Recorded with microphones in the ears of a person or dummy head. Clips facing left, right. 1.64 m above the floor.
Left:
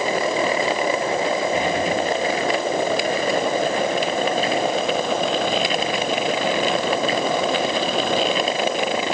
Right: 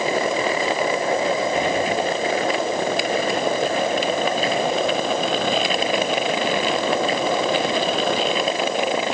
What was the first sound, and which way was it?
Only background noise.